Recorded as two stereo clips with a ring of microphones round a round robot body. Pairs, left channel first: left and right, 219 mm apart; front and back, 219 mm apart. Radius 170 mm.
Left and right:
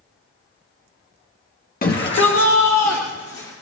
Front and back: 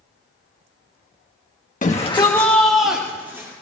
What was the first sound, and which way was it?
A shout, 50° left.